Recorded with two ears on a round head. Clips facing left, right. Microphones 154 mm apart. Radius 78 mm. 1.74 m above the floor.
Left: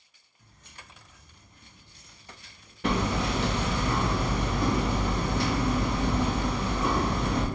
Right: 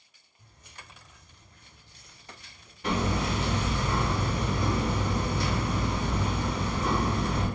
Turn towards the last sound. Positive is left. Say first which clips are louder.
# left 1 dB
turn(degrees=50)  # may be behind; listen again after turning